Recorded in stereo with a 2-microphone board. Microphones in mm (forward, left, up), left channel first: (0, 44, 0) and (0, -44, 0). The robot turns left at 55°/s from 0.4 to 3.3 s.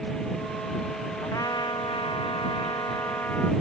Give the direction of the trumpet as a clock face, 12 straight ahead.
7 o'clock.